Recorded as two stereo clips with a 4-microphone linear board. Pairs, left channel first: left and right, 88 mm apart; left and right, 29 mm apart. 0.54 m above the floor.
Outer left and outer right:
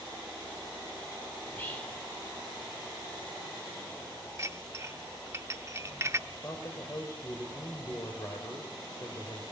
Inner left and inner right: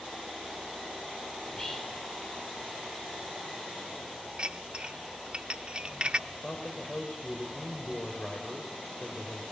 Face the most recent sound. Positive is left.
turn(degrees=40)  # may be behind; listen again after turning